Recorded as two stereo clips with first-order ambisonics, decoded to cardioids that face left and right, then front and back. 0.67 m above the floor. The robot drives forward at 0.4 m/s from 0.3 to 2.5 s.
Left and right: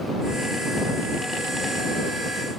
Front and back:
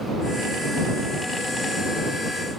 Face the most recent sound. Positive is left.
No sound to turn to.